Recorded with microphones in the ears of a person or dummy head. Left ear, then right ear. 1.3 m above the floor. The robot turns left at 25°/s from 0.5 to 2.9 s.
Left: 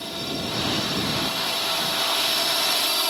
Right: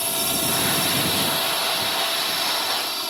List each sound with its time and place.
0.0 s a drone: 135° right; by 3.1 s 165° left